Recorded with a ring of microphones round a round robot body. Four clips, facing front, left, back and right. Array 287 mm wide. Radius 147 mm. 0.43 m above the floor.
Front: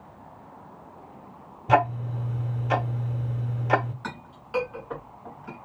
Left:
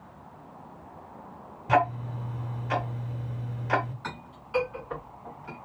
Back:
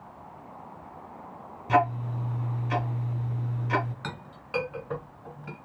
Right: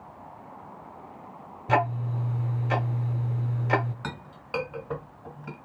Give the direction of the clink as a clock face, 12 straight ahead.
4 o'clock.